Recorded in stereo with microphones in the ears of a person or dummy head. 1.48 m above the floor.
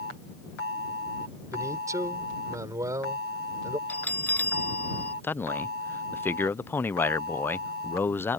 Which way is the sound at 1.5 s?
20° right (ahead or behind).